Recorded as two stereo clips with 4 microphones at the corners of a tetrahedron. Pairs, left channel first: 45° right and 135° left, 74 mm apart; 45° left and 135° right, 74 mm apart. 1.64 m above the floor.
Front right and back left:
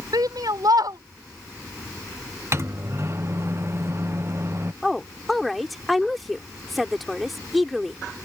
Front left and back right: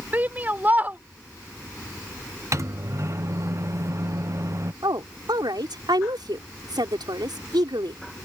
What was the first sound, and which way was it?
A shout, 160° left.